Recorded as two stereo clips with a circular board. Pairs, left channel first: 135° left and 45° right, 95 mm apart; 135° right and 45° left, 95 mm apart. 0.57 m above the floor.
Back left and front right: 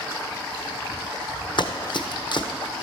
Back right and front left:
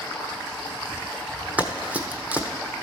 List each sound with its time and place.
1.6 s running footsteps: 120° left, 1.1 m